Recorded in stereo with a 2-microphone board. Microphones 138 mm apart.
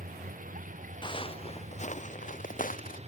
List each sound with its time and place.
0.0 s a vehicle: 80° right; by 3.1 s 50° right (ahead or behind)
1.0 s footsteps: 35° left (ahead or behind); by 3.0 s 80° left